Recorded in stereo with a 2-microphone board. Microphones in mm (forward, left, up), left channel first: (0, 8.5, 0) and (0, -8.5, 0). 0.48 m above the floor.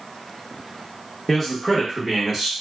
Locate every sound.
1.3 s a man speaking: 20° left (ahead or behind), 0.9 m; by 2.5 s 30° right (ahead or behind), 1.3 m